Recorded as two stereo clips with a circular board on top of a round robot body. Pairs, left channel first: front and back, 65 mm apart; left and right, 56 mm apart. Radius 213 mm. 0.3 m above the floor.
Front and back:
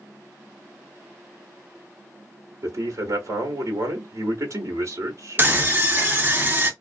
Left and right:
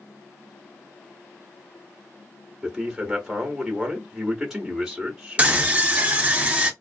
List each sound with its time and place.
2.6 s a man speaking: 170° right, 1.5 m
5.4 s a scream: 145° right, 1.8 m